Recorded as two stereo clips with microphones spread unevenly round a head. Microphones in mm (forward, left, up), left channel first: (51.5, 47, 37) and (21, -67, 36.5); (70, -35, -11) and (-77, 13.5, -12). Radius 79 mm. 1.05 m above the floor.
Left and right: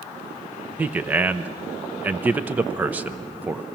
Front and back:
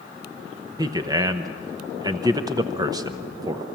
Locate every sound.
0.8 s a man speaking: 165° right, 0.7 m